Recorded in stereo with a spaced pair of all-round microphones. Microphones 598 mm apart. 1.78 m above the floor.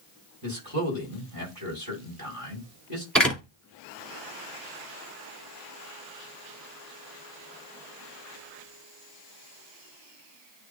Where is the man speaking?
35° right (ahead or behind), 5.5 m.